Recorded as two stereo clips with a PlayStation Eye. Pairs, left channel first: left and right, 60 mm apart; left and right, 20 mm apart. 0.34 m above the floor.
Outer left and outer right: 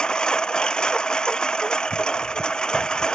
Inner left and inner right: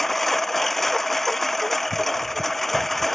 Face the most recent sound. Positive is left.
turn(degrees=15)  # may be behind; listen again after turning